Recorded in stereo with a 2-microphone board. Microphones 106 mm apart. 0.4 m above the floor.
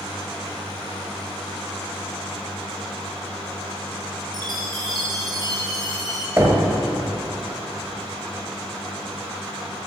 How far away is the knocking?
About 1.6 m.